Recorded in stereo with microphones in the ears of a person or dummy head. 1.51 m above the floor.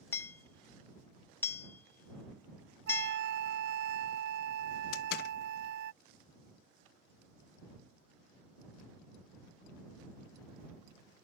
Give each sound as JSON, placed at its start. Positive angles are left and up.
{"t": 0.1, "sound": "hammering", "side_deg": 10}
{"t": 2.9, "sound": "a flute", "side_deg": -70}
{"t": 4.9, "sound": "a door slam", "side_deg": 70}